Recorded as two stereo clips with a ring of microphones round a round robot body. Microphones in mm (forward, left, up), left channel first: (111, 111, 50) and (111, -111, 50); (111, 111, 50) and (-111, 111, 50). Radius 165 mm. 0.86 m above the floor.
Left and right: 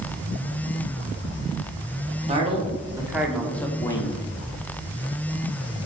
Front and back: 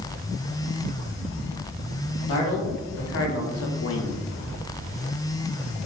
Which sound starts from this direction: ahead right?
A man speaking, at 2.3 s.